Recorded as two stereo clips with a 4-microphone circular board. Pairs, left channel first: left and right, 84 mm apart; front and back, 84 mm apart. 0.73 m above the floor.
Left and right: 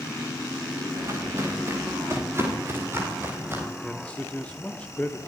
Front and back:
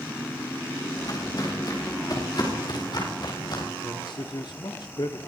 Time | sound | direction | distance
0.9 | footsteps | 35° right | 10 m
3.8 | a man speaking | 15° left | 1.7 m